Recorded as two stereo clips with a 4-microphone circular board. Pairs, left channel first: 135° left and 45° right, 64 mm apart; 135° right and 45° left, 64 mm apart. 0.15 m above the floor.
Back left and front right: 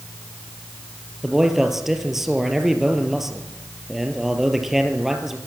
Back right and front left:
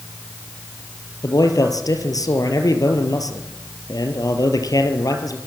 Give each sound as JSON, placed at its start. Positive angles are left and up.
{"t": 1.2, "sound": "a man speaking", "azimuth_deg": -130, "distance_m": 3.0}